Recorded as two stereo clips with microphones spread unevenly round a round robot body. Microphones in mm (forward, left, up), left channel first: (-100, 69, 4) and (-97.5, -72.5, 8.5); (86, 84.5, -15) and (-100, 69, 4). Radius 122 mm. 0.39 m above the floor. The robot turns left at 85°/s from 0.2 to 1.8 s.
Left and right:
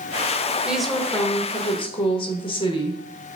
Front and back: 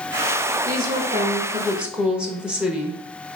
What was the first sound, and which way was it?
A woman speaking, 165° right.